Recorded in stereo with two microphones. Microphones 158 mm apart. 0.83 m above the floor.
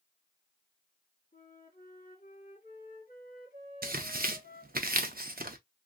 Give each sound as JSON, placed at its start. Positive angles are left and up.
{"t": 1.3, "sound": "a flute", "side_deg": 65, "distance_m": 1.7}
{"t": 3.8, "sound": "tearing paper", "side_deg": -70, "distance_m": 0.6}